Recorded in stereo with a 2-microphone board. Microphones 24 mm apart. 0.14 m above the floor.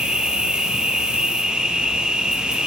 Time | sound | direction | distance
0.0 | an insect | 40° right (ahead or behind) | 2.5 m